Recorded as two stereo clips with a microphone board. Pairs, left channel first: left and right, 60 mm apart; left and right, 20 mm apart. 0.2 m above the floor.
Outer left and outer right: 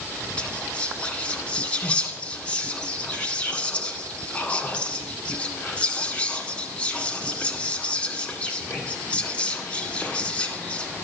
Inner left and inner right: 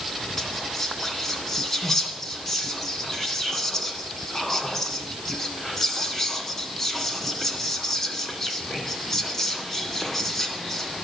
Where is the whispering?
20° left (ahead or behind), 1.6 m.